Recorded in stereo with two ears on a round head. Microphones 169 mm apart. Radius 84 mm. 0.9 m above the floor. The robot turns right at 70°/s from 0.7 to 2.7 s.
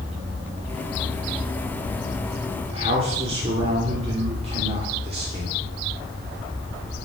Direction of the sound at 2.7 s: 35° right (ahead or behind).